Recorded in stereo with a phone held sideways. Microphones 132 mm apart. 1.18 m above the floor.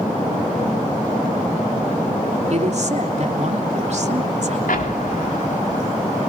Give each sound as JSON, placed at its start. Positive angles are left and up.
{"t": 2.5, "sound": "a woman speaking", "side_deg": -55, "distance_m": 3.0}
{"t": 4.7, "sound": "an explosion", "side_deg": 80, "distance_m": 3.5}